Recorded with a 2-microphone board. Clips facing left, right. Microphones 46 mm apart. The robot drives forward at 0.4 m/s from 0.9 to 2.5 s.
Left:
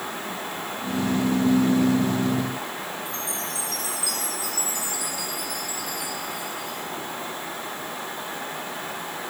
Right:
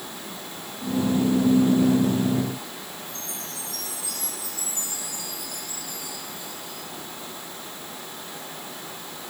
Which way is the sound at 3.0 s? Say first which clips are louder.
Left 6 dB; 85° left.